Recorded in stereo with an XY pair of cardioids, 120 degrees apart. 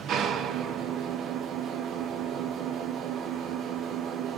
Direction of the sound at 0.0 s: 70° right.